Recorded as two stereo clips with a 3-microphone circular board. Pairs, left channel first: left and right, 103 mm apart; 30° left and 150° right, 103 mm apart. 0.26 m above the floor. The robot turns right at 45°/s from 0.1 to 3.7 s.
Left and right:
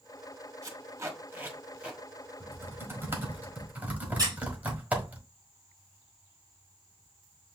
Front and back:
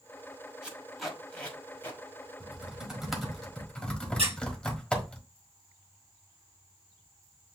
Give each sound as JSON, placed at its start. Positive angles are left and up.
{"t": 0.6, "sound": "tape being pulled", "azimuth_deg": -80, "distance_m": 1.5}
{"t": 2.4, "sound": "typing on a keyboard", "azimuth_deg": -95, "distance_m": 1.3}
{"t": 4.2, "sound": "a squeak", "azimuth_deg": -145, "distance_m": 3.0}